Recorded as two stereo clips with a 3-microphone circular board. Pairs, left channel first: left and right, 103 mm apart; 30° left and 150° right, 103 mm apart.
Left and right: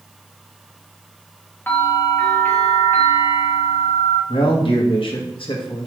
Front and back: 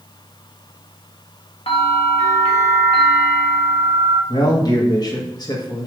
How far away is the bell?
About 1.7 m.